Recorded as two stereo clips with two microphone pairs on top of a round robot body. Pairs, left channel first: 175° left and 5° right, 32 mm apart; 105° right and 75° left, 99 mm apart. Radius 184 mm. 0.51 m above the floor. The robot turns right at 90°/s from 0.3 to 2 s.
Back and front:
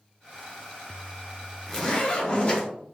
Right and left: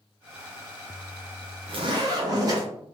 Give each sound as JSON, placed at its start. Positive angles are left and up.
{"t": 1.7, "sound": "a zipper", "azimuth_deg": 90, "distance_m": 0.9}